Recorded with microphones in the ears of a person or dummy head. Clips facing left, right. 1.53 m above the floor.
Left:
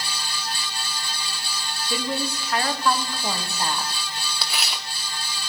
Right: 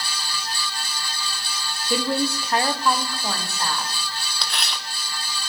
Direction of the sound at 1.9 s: 65° right (ahead or behind).